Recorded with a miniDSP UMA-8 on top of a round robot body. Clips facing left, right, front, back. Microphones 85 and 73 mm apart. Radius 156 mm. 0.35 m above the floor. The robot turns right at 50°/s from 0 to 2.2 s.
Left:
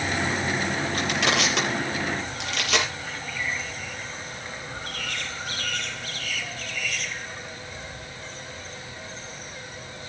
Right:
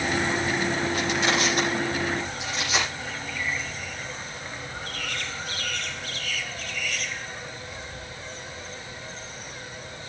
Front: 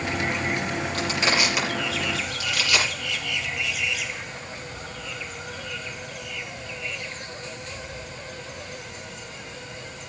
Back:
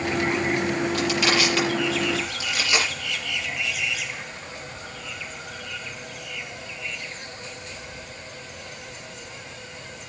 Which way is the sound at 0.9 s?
45° left.